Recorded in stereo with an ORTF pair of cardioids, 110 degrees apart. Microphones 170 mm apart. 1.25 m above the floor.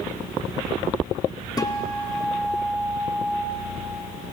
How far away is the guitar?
About 1.9 m.